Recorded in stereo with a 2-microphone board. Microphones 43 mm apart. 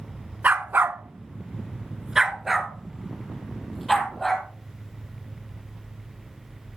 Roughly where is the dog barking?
Right.